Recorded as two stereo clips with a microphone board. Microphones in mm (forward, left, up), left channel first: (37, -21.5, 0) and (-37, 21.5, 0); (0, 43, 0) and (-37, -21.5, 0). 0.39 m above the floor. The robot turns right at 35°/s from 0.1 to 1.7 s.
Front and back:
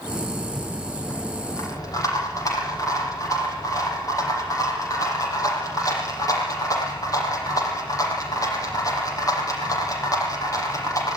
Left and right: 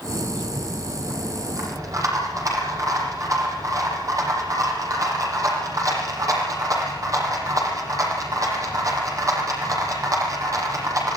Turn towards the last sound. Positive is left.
turn(degrees=-80)